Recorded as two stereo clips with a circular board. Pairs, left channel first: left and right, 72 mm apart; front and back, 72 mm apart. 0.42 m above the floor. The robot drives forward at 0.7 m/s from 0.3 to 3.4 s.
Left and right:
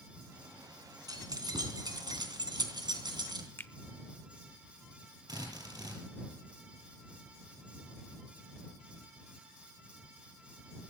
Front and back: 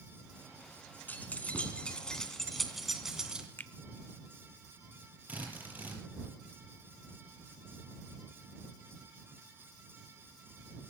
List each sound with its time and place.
1.1 s keys jangling: 65° right, 3 m; by 3.5 s 100° right, 2.5 m
3.6 s a finger snap: 50° left, 0.9 m
5.3 s a drill: 115° right, 6.5 m